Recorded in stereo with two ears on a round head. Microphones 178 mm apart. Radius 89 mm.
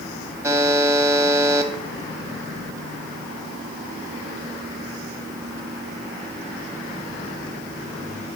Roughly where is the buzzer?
Centre.